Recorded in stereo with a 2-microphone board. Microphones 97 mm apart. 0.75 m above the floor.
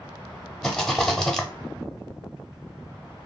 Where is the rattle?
5° left (ahead or behind), 0.6 m.